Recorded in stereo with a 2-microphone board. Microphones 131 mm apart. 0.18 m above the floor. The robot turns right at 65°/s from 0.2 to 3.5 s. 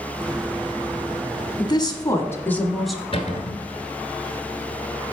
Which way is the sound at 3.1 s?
45° left (ahead or behind).